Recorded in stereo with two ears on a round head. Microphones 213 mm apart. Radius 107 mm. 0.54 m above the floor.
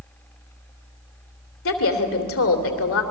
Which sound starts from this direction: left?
A woman speaking, at 1.6 s.